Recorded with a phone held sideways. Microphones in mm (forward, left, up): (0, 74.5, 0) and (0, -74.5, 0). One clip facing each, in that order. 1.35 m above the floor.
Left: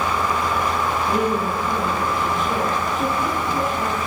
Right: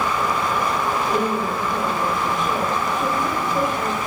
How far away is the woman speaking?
About 3 m.